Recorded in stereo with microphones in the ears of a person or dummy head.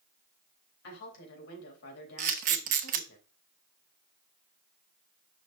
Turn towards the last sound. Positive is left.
turn(degrees=-40)  # may be behind; listen again after turning